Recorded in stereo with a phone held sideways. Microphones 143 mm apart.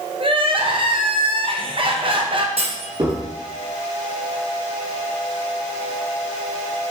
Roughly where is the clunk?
Right.